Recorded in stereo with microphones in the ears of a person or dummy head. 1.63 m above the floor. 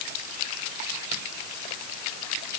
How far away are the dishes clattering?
I don't hear dishes clattering.